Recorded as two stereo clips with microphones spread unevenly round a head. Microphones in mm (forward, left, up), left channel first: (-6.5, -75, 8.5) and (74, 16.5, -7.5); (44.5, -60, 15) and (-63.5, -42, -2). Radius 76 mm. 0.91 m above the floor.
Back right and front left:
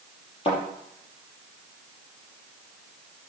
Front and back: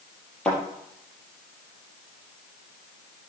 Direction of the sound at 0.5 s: 90° right.